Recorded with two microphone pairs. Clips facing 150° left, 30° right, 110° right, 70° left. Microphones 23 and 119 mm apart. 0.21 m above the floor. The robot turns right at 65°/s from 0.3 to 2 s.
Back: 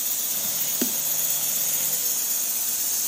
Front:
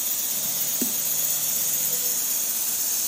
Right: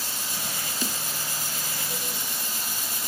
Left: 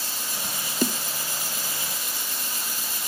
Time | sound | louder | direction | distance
0.8 | a snare drum | back 2 dB, left 9 dB | 90° left | 0.8 m